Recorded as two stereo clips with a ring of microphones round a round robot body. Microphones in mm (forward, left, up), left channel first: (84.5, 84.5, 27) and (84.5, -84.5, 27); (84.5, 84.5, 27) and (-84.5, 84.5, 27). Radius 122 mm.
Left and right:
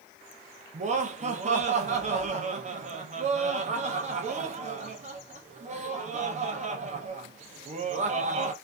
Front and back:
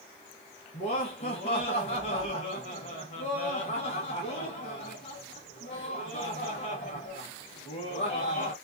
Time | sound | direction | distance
0.7 | laughter | 50° right | 0.8 m